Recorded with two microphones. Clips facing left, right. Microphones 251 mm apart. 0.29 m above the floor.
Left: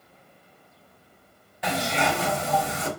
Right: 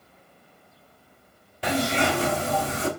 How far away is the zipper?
About 1.1 m.